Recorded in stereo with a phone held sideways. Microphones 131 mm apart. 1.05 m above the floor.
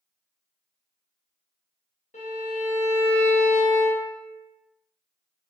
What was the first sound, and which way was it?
A violin, 60° left (ahead or behind).